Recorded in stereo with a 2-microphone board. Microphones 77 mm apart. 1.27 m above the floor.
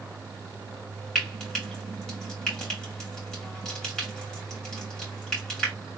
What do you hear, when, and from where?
1.1 s frying: 10° left (ahead or behind), 3 m